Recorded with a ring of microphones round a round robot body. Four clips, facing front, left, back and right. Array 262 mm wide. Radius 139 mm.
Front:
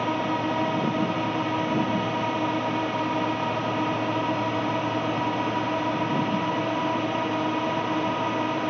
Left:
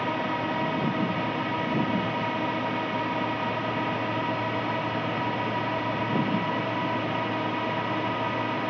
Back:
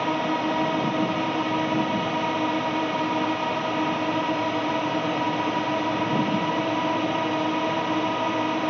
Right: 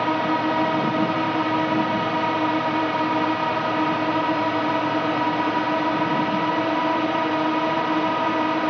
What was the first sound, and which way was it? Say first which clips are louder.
A drone: right 7 dB, back 1 dB; 100° right.